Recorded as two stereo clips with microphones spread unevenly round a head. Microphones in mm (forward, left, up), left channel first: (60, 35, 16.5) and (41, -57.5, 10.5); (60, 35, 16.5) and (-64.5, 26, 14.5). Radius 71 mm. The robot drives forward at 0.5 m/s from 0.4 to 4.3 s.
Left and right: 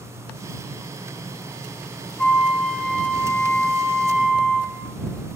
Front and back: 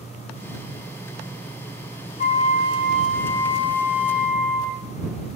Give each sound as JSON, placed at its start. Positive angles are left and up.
{"t": 2.2, "sound": "a flute", "azimuth_deg": 0, "distance_m": 1.3}